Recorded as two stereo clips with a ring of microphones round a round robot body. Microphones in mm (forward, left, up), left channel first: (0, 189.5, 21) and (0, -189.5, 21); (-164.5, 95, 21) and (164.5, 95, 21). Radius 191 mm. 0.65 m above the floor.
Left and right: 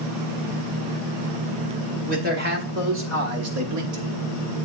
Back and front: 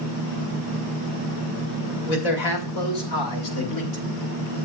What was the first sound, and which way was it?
A man speaking, 160° right.